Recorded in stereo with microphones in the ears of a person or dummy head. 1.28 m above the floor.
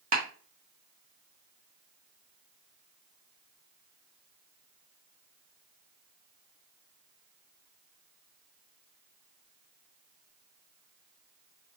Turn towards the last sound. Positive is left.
turn(degrees=-45)  # may be behind; listen again after turning